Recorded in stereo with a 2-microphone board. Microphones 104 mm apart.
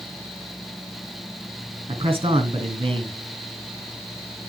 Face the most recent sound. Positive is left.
turn(degrees=-60)  # may be behind; listen again after turning